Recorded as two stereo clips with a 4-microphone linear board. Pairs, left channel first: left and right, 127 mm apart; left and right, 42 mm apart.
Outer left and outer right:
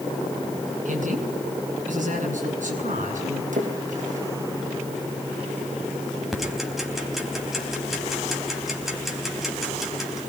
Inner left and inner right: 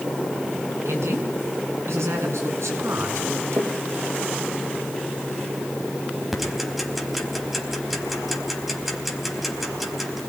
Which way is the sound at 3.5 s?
85° right.